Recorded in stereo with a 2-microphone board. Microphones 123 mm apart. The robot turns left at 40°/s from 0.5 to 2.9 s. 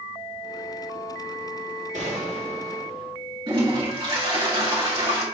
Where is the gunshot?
80° right, 2.5 m; by 3.1 s 120° right, 2.5 m.